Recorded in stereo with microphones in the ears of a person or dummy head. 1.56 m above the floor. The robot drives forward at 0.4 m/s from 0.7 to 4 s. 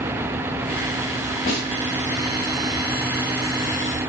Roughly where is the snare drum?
Centre.